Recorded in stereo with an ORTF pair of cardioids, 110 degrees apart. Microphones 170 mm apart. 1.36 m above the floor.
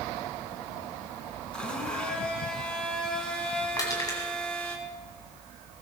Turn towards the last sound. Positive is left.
turn(degrees=25)